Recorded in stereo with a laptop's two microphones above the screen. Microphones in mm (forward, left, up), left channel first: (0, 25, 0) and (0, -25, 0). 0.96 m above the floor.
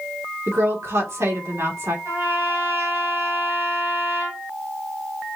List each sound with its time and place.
0.5 s a woman speaking: 65° right (ahead or behind), 1.9 m
2.0 s a trumpet: 60° right (ahead or behind), 3.5 m